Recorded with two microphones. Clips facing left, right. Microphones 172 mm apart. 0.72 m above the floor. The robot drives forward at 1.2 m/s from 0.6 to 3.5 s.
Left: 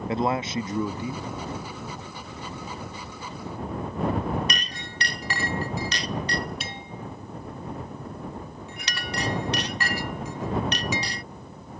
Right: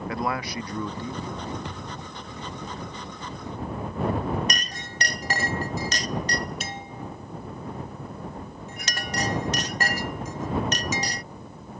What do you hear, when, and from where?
0.1 s a man speaking: 25° left (ahead or behind); by 1.6 s 10° left (ahead or behind)
1.6 s a thud: 80° right; by 2.1 s 85° right
4.5 s a clink: 45° right (ahead or behind)